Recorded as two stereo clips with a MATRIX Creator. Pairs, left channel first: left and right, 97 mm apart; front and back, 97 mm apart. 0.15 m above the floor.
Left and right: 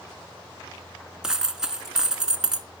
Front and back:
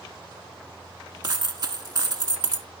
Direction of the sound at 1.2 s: 170° right.